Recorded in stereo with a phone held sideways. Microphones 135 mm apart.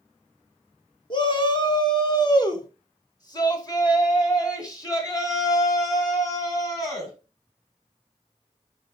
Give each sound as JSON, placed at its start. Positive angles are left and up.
{"t": 1.1, "sound": "a shout", "side_deg": 35, "distance_m": 1.8}